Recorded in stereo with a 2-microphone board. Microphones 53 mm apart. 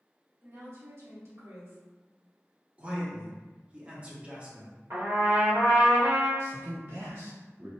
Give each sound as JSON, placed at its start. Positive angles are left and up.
{"t": 0.4, "sound": "a woman speaking", "side_deg": -65, "distance_m": 1.9}
{"t": 2.8, "sound": "a man speaking", "side_deg": -25, "distance_m": 0.7}
{"t": 4.9, "sound": "a trumpet", "side_deg": -55, "distance_m": 2.0}
{"t": 6.4, "sound": "a man speaking", "side_deg": -45, "distance_m": 1.9}